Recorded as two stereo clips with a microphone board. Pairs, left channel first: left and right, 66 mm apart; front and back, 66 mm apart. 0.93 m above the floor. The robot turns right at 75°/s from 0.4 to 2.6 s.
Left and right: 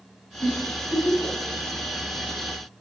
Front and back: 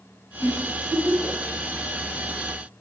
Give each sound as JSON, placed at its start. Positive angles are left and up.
{"t": 0.4, "sound": "a giggle", "azimuth_deg": 30, "distance_m": 4.0}